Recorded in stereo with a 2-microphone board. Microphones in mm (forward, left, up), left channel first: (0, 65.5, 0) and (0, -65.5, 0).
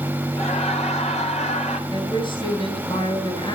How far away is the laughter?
About 3 m.